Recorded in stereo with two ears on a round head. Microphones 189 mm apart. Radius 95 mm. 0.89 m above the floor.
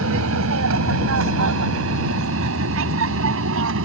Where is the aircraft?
75° right (ahead or behind); by 3.9 s 70° right (ahead or behind).